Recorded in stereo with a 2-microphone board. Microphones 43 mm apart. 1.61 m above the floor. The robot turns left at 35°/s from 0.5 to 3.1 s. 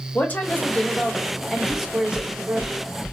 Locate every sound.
0.1 s a woman speaking: 35° left, 1.0 m; by 2.7 s 40° right, 1.0 m
1.7 s knocking: 35° right (ahead or behind), 0.9 m; by 3.1 s 10° right (ahead or behind), 0.9 m